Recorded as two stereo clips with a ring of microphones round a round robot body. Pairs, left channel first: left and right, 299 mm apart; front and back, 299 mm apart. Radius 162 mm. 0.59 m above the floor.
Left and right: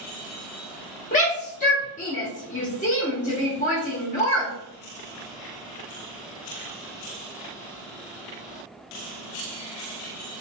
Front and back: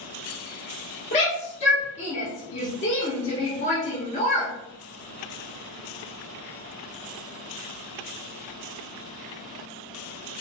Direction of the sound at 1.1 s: 50° left.